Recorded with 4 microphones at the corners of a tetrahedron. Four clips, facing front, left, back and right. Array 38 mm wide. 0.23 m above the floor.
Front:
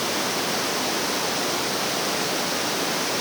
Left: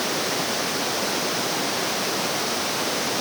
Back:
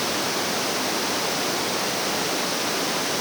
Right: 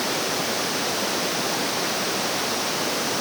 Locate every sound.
Only background noise.